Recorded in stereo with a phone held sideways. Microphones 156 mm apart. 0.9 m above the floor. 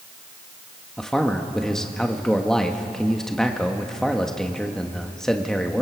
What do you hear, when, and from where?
1.0 s a man speaking: 5° left (ahead or behind), 1.4 m